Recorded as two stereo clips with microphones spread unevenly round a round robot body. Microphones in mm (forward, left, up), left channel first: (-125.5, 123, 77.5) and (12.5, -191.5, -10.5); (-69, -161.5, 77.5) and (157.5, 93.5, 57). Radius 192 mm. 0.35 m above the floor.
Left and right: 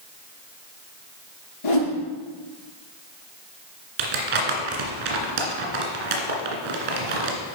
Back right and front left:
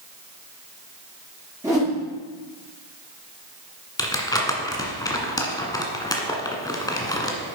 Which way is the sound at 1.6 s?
130° left.